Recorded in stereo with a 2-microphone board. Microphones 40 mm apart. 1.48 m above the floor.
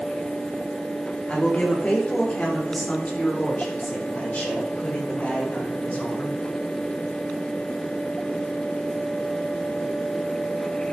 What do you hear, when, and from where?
1.3 s a woman speaking: 35° left (ahead or behind), 4 m; by 6.4 s 45° left (ahead or behind), 7.5 m